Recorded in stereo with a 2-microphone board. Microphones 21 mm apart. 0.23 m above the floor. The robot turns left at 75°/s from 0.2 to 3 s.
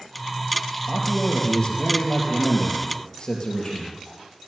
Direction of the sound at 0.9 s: 170° right.